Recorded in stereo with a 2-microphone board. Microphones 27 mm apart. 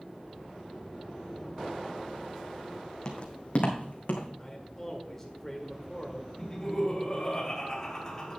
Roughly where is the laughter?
Left.